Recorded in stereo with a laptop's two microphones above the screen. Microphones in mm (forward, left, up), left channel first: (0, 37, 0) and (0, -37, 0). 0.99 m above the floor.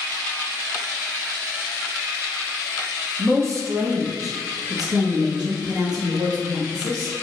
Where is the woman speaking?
35° right (ahead or behind), 0.9 m; by 7.1 s 65° right (ahead or behind), 2.5 m.